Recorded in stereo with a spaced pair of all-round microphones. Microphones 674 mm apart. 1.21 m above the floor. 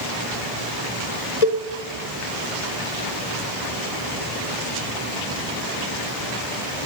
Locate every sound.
1.4 s a cowbell: 70° left (ahead or behind), 2.5 m